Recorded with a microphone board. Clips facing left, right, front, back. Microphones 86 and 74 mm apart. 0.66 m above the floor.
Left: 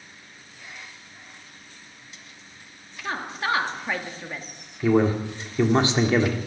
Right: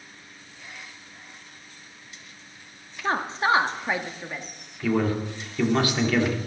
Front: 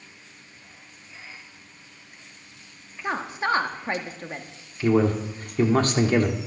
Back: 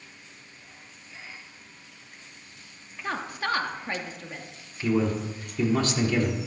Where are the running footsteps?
No running footsteps in this recording.